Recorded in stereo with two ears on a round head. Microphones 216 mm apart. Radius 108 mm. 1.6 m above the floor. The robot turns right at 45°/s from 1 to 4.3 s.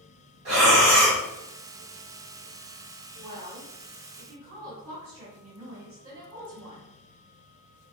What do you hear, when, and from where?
0.5 s breathing: 55° right (ahead or behind), 1.4 m; by 1.2 s 65° right (ahead or behind), 1.4 m
3.2 s a woman speaking: 110° right, 1.5 m; by 6.9 s 60° right, 1.5 m